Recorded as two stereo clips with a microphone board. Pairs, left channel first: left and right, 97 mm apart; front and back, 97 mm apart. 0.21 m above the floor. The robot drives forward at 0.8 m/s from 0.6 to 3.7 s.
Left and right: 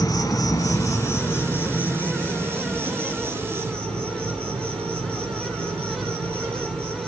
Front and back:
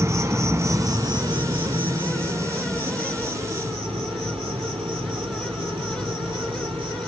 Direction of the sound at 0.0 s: 130° left.